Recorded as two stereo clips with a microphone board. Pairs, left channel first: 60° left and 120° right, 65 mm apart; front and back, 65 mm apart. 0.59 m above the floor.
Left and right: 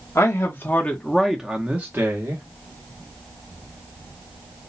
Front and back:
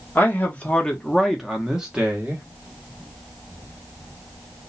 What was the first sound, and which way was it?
A man speaking, 55° left.